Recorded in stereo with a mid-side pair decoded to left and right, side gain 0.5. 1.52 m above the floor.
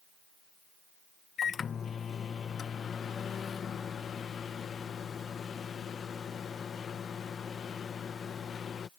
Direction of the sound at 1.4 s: 45° left.